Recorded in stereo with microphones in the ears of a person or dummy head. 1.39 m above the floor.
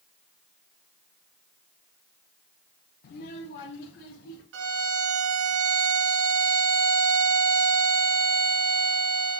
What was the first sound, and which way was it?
A child speaking, 60° left (ahead or behind).